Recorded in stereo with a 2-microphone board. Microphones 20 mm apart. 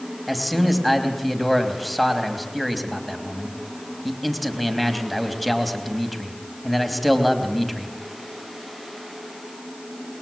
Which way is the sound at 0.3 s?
Centre (ahead or behind).